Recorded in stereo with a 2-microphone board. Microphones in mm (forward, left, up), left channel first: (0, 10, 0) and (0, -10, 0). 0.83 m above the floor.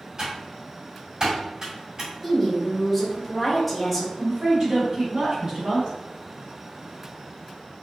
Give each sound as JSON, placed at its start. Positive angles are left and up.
{"t": 0.2, "sound": "typing on a keyboard", "side_deg": -35, "distance_m": 1.9}
{"t": 2.2, "sound": "a woman speaking", "side_deg": 0, "distance_m": 1.2}
{"t": 4.2, "sound": "a woman speaking", "side_deg": -45, "distance_m": 2.0}